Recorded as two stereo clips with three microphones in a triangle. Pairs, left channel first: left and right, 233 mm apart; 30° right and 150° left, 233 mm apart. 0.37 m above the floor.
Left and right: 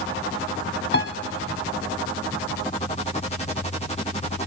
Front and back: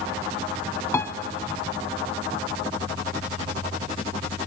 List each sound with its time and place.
0.9 s a piano: 50° left, 0.9 m